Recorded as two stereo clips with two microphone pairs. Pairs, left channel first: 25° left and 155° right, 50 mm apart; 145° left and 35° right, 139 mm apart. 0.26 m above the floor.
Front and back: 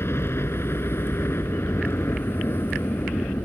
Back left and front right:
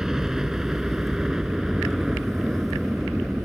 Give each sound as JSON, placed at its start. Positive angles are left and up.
{"t": 0.0, "sound": "a helicopter", "azimuth_deg": 50}